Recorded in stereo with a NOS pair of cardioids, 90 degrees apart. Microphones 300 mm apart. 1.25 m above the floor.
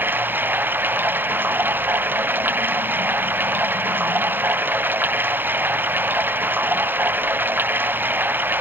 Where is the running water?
5° right.